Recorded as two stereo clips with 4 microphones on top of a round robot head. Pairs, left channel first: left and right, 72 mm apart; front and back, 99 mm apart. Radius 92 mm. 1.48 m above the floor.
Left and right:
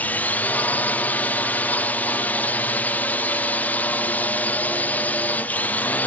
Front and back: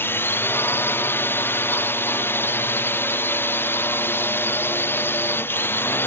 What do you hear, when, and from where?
0.0 s a drone: 45° left